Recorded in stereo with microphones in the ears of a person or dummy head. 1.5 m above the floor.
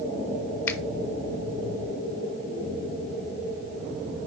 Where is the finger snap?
10° left (ahead or behind), 0.9 m.